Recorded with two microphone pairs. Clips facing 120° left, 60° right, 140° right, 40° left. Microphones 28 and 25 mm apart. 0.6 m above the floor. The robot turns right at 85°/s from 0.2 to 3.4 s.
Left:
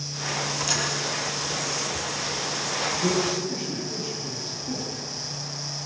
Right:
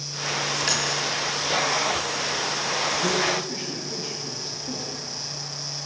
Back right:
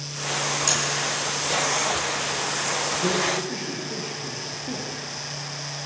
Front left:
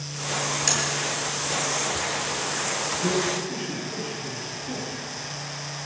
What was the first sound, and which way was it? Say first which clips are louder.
Tapping: right 2 dB, even; 35° right.